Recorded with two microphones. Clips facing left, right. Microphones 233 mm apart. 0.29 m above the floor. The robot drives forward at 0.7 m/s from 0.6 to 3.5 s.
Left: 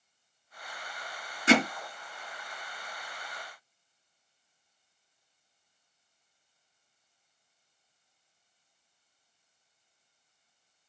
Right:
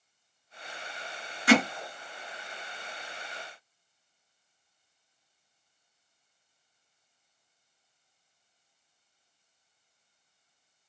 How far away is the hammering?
About 2.5 m.